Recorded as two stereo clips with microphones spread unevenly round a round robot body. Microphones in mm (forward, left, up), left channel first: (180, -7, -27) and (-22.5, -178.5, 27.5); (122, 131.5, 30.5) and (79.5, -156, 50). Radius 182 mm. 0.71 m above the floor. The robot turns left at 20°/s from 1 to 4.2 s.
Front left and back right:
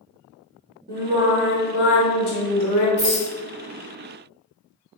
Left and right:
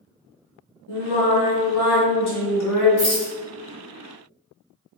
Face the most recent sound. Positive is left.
turn(degrees=90)